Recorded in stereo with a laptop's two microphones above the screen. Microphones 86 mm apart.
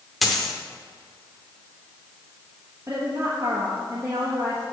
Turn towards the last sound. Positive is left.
turn(degrees=-30)  # may be behind; listen again after turning